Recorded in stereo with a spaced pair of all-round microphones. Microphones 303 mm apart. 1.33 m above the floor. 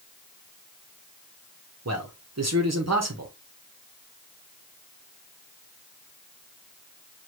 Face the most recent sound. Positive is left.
turn(degrees=-55)  # may be behind; listen again after turning